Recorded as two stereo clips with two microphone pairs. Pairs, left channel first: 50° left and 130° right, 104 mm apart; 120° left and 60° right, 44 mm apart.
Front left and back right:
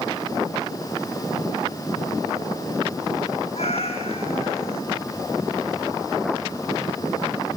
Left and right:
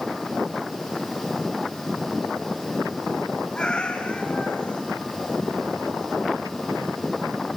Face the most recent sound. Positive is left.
turn(degrees=50)